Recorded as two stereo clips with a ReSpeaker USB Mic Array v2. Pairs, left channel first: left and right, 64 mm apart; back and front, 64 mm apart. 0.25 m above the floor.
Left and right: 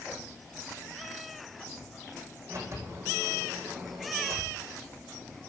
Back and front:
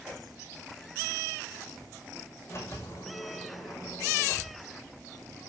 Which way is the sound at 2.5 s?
135° right.